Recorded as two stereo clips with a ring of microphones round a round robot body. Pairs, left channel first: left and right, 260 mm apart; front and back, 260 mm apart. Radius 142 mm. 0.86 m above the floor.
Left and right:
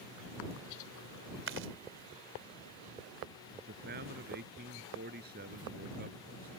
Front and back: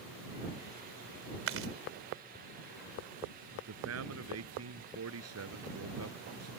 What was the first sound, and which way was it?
Chewing, 140° right.